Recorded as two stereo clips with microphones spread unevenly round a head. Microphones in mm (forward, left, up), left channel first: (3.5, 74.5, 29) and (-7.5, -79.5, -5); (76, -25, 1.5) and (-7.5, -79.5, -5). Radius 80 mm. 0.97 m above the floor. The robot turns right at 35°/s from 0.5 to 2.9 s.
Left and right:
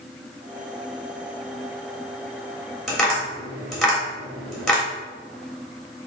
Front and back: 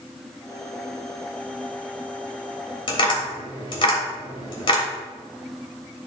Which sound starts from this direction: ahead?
Tapping, at 2.9 s.